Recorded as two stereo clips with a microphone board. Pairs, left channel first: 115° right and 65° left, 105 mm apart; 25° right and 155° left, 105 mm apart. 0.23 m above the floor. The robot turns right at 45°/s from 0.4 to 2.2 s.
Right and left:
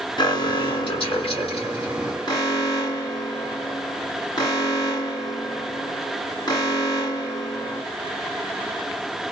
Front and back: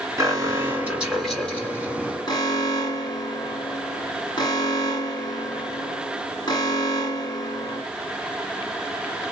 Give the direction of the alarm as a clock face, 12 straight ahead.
5 o'clock.